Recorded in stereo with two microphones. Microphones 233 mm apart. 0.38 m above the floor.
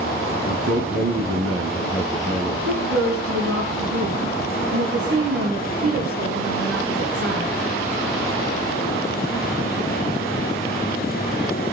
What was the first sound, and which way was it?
A man speaking, 75° right (ahead or behind).